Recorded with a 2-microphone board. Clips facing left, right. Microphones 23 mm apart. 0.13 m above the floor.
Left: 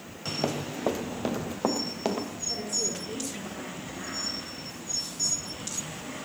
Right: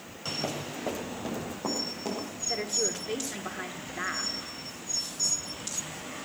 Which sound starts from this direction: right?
A woman speaking, at 2.5 s.